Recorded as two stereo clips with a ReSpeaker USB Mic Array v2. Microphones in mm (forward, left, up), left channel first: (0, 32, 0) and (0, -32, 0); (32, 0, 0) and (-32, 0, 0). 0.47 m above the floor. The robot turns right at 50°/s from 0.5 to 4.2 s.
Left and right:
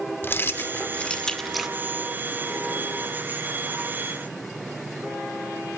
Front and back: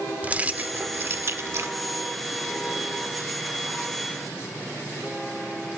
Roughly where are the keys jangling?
Behind left.